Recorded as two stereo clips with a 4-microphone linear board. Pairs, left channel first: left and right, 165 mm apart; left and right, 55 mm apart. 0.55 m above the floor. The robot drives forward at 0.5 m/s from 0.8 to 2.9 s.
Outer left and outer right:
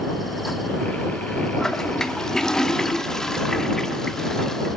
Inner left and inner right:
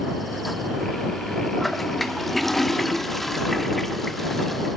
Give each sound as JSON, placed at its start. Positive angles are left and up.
{"t": 1.6, "sound": "a toilet flushing", "side_deg": 5, "distance_m": 0.6}